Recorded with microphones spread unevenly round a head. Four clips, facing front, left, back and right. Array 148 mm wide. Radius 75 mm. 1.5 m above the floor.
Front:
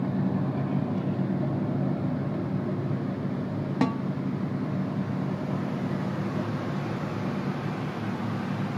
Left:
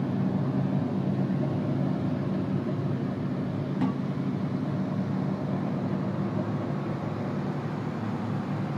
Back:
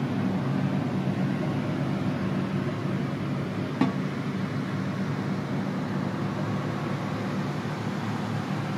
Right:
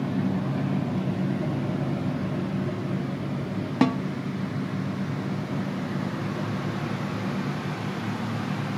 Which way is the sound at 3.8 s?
75° right.